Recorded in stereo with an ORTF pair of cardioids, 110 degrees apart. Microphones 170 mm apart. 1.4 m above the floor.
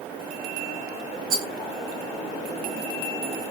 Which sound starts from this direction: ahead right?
A rattle, at 1.3 s.